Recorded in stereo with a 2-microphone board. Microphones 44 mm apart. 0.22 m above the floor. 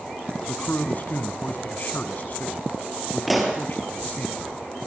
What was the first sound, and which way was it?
A man speaking, 40° left (ahead or behind).